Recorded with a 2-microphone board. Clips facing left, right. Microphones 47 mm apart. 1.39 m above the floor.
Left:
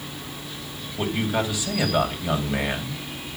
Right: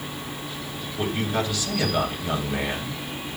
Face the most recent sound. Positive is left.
turn(degrees=10)  # may be behind; listen again after turning